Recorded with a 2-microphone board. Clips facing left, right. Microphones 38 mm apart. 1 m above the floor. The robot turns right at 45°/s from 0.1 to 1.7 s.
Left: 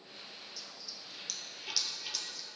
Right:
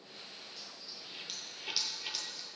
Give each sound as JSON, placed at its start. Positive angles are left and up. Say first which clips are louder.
{"t": 0.6, "sound": "a dropped coin", "louder": "even", "side_deg": -35, "distance_m": 1.1}